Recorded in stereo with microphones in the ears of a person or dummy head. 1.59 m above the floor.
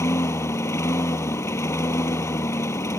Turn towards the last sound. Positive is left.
turn(degrees=15)  # may be behind; listen again after turning